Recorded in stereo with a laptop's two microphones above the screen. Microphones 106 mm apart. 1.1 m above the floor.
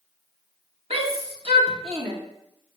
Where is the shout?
65° right (ahead or behind), 1.7 m.